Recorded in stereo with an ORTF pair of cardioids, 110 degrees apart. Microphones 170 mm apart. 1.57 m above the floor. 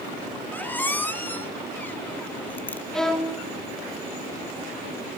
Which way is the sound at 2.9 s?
5° left.